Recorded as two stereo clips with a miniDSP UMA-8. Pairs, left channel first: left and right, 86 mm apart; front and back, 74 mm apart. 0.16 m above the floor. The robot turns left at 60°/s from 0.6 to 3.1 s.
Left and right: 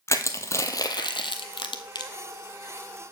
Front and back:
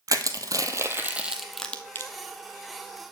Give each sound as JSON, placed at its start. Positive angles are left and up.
{"t": 0.1, "sound": "crushing", "azimuth_deg": 145, "distance_m": 0.9}